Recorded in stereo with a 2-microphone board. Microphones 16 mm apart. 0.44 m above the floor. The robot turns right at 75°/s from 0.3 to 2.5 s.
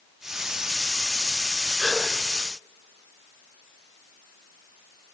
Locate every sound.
1.8 s a gasp: 20° left (ahead or behind), 6.5 m; by 2.0 s centre (ahead or behind), 6.5 m